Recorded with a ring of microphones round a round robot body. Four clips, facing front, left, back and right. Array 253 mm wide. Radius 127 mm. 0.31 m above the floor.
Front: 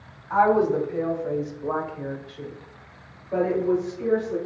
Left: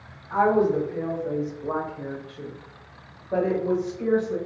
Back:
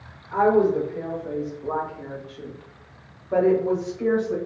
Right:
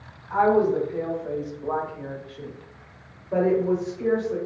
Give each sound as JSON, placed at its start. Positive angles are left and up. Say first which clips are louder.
{"t": 0.3, "sound": "a woman speaking", "louder": "right 1 dB, back 1 dB", "azimuth_deg": 0, "distance_m": 1.6}